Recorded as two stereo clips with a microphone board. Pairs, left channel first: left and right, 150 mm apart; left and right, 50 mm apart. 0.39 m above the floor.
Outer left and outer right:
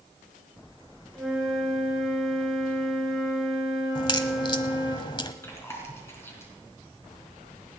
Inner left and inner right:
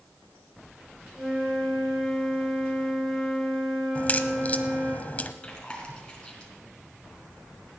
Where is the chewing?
15° left (ahead or behind), 4 m.